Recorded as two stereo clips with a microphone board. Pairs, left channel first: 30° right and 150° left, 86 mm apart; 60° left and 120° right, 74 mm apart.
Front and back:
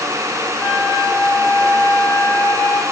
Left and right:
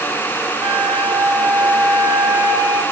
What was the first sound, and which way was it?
A flute, 60° right.